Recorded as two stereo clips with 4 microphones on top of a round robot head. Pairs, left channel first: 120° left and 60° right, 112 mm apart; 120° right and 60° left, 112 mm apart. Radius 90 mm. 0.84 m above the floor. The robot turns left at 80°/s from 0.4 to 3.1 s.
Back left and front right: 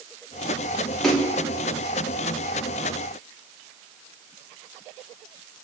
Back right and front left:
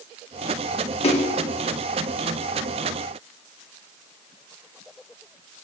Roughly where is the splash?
Behind right.